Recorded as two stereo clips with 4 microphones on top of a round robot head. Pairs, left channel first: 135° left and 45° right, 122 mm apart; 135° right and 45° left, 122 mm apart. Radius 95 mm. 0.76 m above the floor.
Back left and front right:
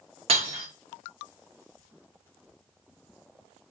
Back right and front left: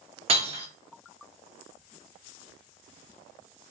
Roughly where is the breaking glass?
Ahead.